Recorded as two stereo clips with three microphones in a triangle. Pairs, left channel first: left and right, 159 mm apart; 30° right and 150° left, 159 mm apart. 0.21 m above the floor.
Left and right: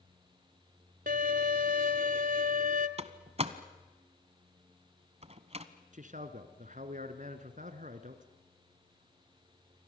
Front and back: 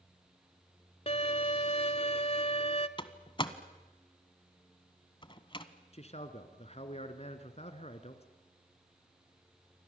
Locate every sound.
1.1 s a violin: 75° right, 1.0 m
3.0 s a door slam: 70° right, 1.1 m
5.9 s a man speaking: 70° right, 2 m